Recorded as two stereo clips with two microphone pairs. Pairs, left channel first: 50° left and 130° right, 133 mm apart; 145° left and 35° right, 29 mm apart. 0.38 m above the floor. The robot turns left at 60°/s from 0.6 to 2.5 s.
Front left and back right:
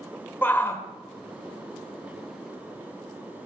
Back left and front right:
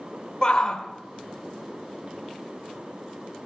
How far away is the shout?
About 1.1 m.